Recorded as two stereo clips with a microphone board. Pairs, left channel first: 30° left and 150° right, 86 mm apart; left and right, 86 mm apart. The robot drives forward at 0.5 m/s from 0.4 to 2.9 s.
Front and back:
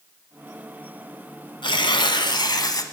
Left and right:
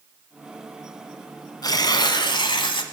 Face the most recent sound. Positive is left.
turn(degrees=75)